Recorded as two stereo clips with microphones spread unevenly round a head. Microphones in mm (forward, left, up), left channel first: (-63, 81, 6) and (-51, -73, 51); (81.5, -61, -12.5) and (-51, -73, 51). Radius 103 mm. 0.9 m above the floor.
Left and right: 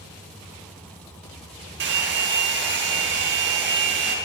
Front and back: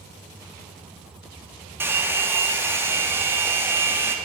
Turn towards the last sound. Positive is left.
turn(degrees=-100)